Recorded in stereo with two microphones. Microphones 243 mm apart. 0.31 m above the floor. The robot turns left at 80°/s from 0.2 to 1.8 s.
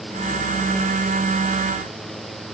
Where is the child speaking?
I don't hear a child speaking.